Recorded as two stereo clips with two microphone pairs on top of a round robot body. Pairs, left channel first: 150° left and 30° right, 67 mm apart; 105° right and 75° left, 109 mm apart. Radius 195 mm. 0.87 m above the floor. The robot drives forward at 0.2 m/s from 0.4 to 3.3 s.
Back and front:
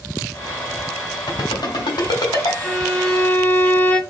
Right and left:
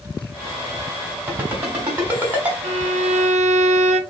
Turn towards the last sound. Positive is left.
turn(degrees=80)